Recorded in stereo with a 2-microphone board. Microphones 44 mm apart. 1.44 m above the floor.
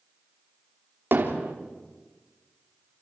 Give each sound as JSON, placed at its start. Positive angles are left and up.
{"t": 1.1, "sound": "hammering", "side_deg": -50, "distance_m": 3.0}